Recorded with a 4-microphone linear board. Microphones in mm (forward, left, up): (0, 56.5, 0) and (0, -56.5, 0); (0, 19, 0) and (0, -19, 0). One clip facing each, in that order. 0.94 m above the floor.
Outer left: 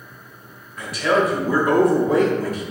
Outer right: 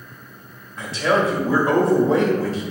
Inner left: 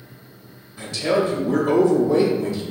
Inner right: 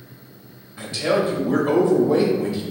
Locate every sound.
0.8 s a man speaking: 25° right (ahead or behind), 1.5 m